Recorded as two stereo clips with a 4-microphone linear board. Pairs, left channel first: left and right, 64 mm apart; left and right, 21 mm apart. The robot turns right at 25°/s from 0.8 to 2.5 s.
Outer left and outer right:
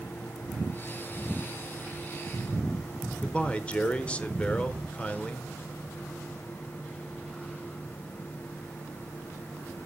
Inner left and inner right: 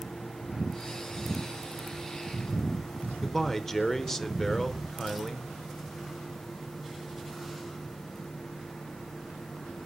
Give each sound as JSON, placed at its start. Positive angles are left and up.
{"t": 3.2, "sound": "a man speaking", "side_deg": 20, "distance_m": 0.9}